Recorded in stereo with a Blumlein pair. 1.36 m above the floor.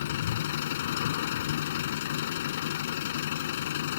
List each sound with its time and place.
0.0 s an engine running: 55° left